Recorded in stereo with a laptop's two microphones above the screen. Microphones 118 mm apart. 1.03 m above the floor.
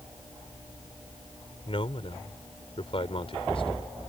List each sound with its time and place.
1.7 s a man speaking: 50° left (ahead or behind)